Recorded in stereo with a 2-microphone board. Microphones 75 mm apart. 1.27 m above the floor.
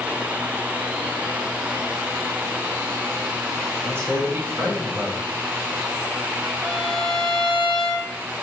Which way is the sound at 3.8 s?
35° right (ahead or behind).